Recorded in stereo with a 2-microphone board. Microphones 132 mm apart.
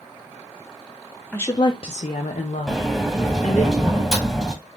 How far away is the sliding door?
About 0.9 m.